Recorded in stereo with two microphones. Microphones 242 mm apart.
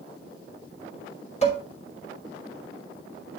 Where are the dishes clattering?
30° left (ahead or behind), 5 m.